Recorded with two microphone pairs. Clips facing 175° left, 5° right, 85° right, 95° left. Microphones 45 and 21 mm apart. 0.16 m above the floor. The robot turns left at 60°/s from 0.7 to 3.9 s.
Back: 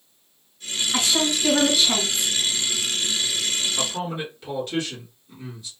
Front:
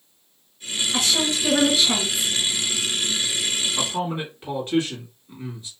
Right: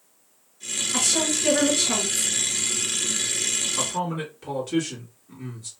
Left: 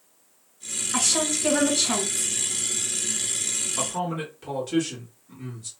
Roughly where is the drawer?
I don't hear a drawer.